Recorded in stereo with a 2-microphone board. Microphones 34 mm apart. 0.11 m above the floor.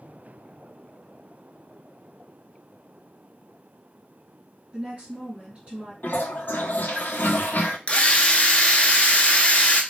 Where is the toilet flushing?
75° left (ahead or behind), 0.5 m.